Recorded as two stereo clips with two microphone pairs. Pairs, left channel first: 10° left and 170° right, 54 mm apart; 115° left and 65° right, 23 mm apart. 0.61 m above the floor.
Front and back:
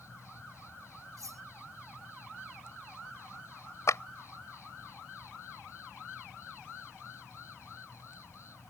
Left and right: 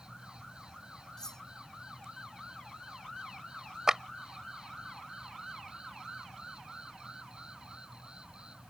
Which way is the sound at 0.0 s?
15° right.